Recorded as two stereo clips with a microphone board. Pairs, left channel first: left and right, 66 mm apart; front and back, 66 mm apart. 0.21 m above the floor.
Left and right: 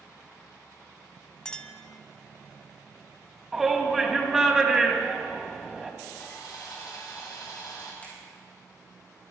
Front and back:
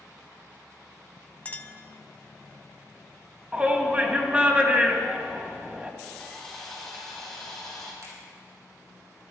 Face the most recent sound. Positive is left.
turn(degrees=155)